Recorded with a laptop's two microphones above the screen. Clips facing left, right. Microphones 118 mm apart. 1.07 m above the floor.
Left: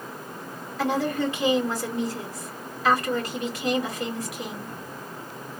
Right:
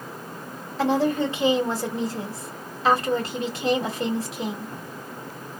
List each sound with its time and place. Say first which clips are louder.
0.8 s a woman speaking: right 3 dB; 30° right (ahead or behind), 2 m